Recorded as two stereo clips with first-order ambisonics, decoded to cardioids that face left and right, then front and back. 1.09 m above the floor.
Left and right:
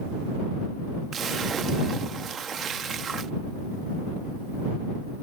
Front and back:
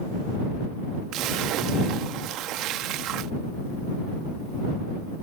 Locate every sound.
1.1 s a splash: 155° right